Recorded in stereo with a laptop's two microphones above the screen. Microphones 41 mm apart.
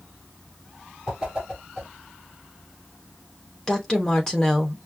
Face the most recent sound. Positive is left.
turn(degrees=15)  # may be behind; listen again after turning